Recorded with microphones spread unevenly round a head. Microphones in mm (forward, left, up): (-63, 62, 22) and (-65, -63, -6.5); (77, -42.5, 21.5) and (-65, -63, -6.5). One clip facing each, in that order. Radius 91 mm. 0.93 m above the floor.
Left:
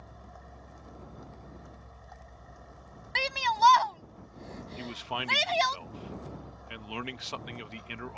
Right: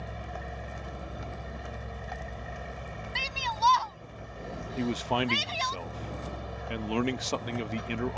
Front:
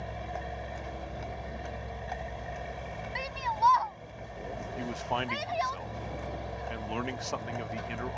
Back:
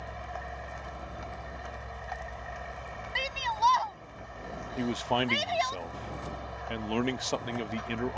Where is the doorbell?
No doorbell in this recording.